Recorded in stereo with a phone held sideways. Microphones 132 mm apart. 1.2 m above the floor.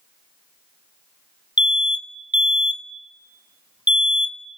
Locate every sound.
1.6 s an alarm: 35° left (ahead or behind), 1.1 m